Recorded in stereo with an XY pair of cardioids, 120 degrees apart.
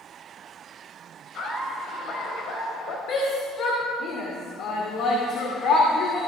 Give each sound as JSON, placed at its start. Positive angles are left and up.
{"t": 1.3, "sound": "laughter", "azimuth_deg": 60, "distance_m": 6.0}
{"t": 3.1, "sound": "a shout", "azimuth_deg": 65, "distance_m": 2.5}